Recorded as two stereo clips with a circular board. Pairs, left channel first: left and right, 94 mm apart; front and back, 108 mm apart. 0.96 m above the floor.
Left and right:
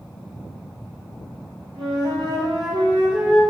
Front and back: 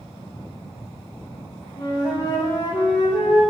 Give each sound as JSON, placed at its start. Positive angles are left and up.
{"t": 1.8, "sound": "a flute", "azimuth_deg": -50, "distance_m": 3.0}